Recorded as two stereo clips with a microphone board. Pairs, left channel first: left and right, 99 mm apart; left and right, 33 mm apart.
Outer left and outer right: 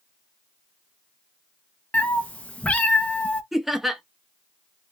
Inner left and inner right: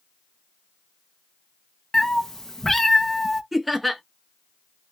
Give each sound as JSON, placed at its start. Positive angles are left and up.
{"t": 1.9, "sound": "a cat meowing", "side_deg": 15, "distance_m": 0.5}
{"t": 3.5, "sound": "laughter", "side_deg": -5, "distance_m": 0.6}